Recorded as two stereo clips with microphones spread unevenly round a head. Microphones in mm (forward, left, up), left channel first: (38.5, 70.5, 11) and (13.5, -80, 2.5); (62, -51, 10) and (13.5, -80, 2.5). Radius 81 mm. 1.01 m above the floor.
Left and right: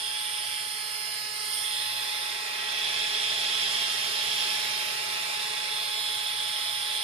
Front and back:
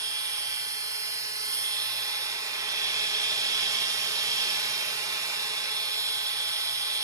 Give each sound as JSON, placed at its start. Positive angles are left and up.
{"t": 0.0, "sound": "a machine running", "azimuth_deg": -155, "distance_m": 0.8}